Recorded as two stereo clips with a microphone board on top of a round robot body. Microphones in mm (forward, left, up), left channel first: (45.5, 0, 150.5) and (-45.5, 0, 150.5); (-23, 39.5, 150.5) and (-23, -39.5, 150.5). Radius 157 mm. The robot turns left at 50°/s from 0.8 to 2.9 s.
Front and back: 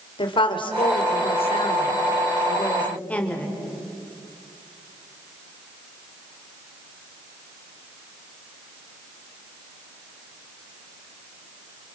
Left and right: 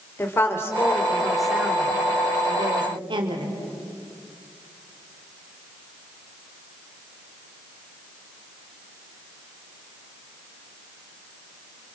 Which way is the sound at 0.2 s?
30° left.